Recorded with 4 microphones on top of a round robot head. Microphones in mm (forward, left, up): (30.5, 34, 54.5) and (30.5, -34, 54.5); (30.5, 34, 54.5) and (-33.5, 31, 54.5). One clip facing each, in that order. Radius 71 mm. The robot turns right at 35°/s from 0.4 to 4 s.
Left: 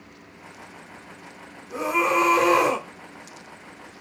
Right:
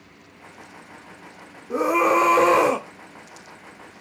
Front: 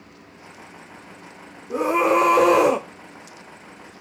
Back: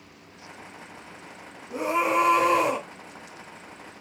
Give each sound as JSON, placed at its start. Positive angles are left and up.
{"t": 1.7, "sound": "a scream", "azimuth_deg": -55, "distance_m": 1.5}